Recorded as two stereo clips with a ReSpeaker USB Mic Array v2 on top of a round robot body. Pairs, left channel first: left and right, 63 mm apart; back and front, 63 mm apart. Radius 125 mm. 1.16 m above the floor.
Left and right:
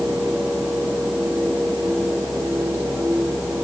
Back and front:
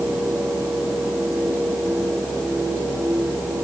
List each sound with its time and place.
Only background noise.